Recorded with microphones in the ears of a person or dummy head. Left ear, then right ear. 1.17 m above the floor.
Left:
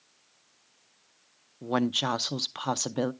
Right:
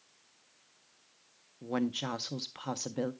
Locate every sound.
1.6 s a woman speaking: 30° left (ahead or behind), 0.5 m